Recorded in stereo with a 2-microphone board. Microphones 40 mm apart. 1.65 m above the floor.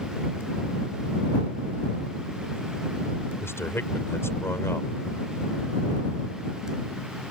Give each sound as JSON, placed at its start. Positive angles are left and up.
{"t": 3.4, "sound": "a man speaking", "side_deg": 70}